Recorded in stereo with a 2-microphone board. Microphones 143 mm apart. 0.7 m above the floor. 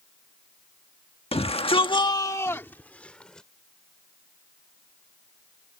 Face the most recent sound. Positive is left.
turn(degrees=5)  # may be behind; listen again after turning